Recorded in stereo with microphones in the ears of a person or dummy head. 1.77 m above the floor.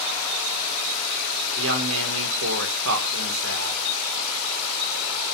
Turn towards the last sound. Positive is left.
turn(degrees=-70)  # may be behind; listen again after turning